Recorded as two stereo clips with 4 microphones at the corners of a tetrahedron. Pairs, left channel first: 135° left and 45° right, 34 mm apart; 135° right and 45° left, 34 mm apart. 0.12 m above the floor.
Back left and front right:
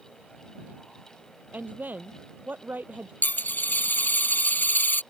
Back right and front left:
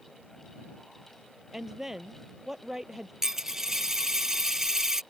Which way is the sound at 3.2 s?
125° left.